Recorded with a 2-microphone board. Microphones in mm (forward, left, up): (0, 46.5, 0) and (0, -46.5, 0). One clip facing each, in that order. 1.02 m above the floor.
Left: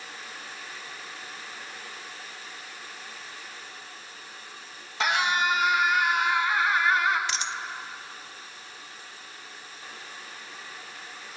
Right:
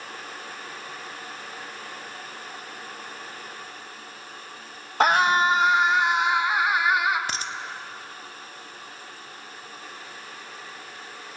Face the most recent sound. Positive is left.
turn(degrees=-45)  # may be behind; listen again after turning